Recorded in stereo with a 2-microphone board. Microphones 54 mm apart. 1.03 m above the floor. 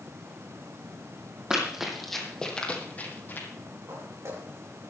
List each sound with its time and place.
1.5 s running footsteps: 15° right (ahead or behind), 2.5 m; by 3.5 s 45° left (ahead or behind), 2.5 m
3.9 s footsteps: 70° right (ahead or behind), 4.5 m